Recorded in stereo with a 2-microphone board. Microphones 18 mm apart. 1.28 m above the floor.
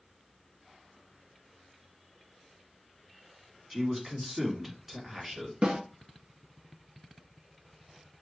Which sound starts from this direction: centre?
A man speaking, at 3.7 s.